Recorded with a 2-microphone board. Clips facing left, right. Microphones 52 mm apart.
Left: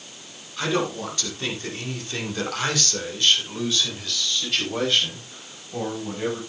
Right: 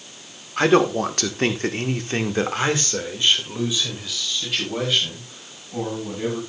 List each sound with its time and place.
0.6 s a man speaking: 60° right (ahead or behind), 2 m; by 6.4 s centre (ahead or behind), 6 m